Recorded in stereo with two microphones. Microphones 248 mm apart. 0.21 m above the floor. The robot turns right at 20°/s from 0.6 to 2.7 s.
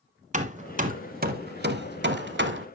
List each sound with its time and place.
0.3 s hammering: 30° right (ahead or behind), 0.7 m; by 2.7 s 50° right (ahead or behind), 0.7 m